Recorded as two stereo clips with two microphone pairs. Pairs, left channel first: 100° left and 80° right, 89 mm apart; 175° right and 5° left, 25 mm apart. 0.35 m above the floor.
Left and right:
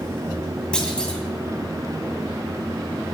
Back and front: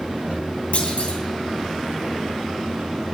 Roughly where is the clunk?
Behind.